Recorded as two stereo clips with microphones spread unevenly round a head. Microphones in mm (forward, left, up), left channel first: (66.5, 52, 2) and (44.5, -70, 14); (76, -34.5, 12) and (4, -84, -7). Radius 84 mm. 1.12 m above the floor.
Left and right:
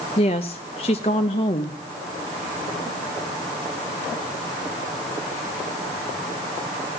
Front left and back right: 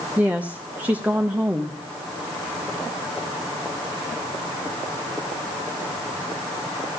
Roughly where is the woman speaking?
Behind left.